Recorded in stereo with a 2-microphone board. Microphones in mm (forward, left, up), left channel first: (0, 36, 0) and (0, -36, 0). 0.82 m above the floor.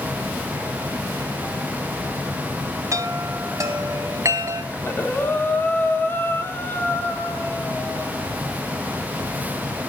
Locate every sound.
2.9 s a chime: 50° right (ahead or behind), 2 m
4.7 s breathing: 30° left (ahead or behind), 2.5 m